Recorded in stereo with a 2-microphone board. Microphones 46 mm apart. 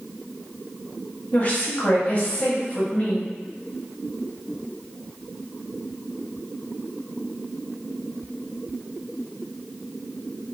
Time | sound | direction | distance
1.3 | a woman speaking | 35° left (ahead or behind) | 0.9 m